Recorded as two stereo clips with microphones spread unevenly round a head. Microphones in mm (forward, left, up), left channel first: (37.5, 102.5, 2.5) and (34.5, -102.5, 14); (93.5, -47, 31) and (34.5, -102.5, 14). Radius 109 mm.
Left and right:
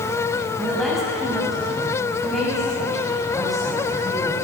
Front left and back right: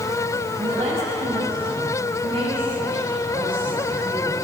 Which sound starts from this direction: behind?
A woman speaking, at 0.6 s.